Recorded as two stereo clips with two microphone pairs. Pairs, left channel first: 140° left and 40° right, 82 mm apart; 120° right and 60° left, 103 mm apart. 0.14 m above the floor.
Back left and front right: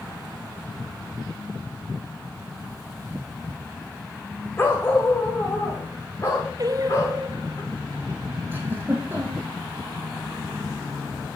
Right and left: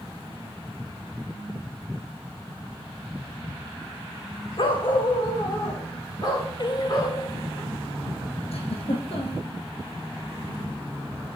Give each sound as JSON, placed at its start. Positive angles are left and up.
{"t": 4.6, "sound": "a dog barking", "azimuth_deg": -155, "distance_m": 2.0}
{"t": 6.6, "sound": "singing", "azimuth_deg": -80, "distance_m": 0.8}
{"t": 8.5, "sound": "a giggle", "azimuth_deg": -105, "distance_m": 3.0}